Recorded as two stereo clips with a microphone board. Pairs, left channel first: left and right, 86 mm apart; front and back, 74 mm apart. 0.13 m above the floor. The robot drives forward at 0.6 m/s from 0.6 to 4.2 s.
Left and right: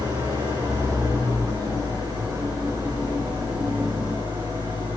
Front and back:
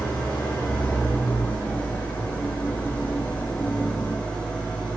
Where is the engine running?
60° right, 9.5 m; by 5.0 s 75° right, 8.5 m.